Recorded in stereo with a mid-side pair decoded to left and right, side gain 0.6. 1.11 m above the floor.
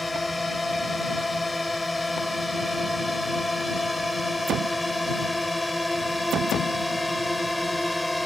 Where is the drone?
10° left; by 8.3 s 5° left.